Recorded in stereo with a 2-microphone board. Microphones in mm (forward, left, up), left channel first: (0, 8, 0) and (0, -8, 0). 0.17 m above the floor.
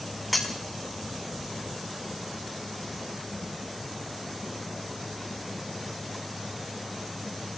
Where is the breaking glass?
5° left (ahead or behind), 2.5 m.